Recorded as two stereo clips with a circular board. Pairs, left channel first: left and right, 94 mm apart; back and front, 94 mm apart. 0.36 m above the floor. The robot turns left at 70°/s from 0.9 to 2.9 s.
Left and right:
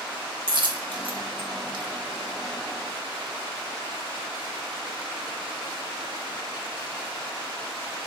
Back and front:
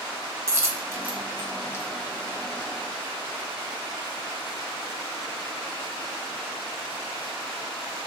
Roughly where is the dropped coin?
Ahead right.